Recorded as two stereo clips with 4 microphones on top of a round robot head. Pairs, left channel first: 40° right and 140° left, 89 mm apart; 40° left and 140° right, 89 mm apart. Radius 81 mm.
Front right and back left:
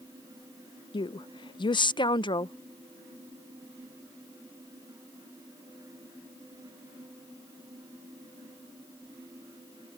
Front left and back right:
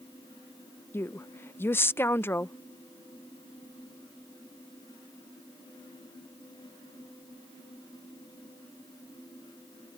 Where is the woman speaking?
20° right.